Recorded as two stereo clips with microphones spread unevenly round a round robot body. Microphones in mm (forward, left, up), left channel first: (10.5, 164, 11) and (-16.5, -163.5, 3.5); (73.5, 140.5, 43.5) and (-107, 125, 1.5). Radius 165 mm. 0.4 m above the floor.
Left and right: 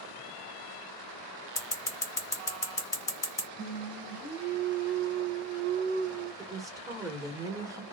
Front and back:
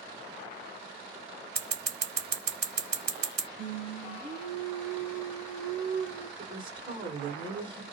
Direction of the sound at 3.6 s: 170° left.